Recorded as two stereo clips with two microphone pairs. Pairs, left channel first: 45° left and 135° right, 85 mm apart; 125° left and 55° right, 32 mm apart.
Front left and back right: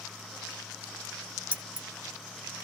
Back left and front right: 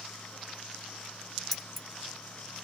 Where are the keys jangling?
150° right, 0.8 m.